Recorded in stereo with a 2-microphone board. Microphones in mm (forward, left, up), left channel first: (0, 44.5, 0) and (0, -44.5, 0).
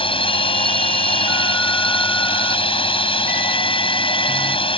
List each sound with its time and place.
0.0 s a drone: 80° left